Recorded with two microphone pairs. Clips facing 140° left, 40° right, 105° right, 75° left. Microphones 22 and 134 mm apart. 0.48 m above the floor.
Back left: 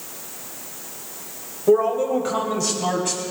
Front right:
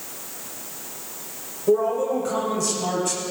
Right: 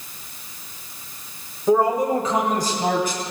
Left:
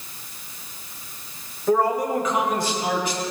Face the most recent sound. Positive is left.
turn(degrees=-145)